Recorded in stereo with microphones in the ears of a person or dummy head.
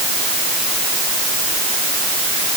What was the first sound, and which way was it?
Only background noise.